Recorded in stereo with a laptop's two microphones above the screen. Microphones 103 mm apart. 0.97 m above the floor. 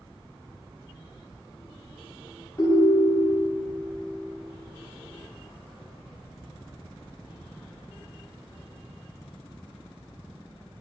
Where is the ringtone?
35° left (ahead or behind), 0.6 m.